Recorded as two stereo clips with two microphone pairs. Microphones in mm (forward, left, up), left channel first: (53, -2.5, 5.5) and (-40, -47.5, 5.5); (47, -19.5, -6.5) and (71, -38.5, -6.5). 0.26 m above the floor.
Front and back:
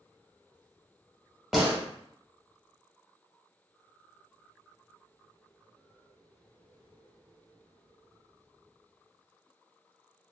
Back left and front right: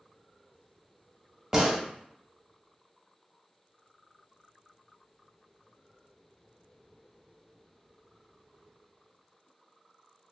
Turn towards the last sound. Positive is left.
turn(degrees=-75)